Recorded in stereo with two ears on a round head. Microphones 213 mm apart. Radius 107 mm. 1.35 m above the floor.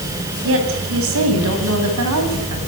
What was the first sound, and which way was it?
A woman speaking, 65° right (ahead or behind).